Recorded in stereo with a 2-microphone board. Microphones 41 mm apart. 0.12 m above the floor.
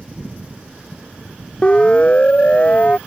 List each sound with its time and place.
1.6 s a siren: 25° left (ahead or behind); by 3.0 s 30° left (ahead or behind)